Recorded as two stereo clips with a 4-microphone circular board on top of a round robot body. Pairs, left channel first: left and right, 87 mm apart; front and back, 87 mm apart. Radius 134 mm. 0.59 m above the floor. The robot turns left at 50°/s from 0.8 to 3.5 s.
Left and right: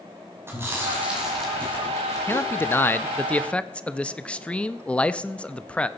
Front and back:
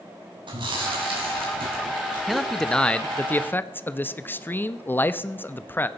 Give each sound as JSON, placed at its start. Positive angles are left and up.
{"t": 0.5, "sound": "chewing", "azimuth_deg": -150, "distance_m": 5.5}
{"t": 2.3, "sound": "a man speaking", "azimuth_deg": 95, "distance_m": 1.0}